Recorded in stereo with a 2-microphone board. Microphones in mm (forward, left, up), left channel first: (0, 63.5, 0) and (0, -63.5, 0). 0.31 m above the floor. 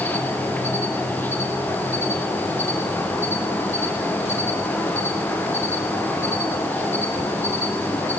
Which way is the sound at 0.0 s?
15° left (ahead or behind).